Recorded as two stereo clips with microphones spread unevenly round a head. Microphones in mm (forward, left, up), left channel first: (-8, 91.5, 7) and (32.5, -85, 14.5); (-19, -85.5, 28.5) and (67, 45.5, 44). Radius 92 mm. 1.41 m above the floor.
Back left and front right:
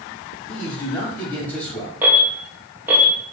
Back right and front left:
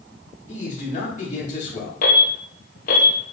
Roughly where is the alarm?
Behind right.